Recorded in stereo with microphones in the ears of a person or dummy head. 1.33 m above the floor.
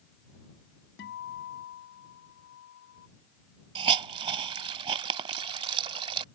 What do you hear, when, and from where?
1.0 s a guitar: 65° left (ahead or behind)
3.8 s a hiss: 35° right (ahead or behind)